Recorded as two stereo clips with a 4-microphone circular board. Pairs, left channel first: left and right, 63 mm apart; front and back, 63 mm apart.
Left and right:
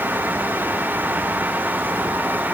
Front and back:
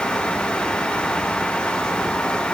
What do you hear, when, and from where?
Only background noise.